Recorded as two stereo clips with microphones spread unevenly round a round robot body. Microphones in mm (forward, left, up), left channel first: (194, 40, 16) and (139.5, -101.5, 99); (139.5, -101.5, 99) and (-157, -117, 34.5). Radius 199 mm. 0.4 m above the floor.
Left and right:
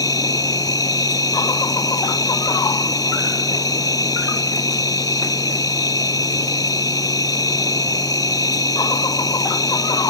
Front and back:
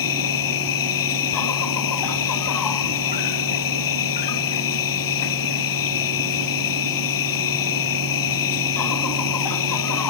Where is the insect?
Straight ahead.